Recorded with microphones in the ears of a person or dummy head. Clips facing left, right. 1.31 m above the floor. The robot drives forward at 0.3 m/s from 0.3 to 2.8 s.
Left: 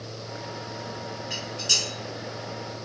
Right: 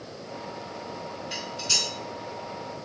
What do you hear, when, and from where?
1.3 s dishes clattering: 35° left (ahead or behind), 1.5 m